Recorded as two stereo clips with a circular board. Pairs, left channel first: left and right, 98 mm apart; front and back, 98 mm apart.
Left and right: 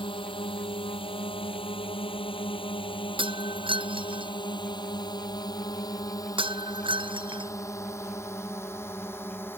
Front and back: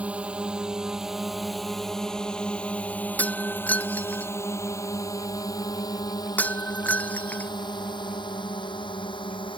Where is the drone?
105° left; by 9.6 s 25° left.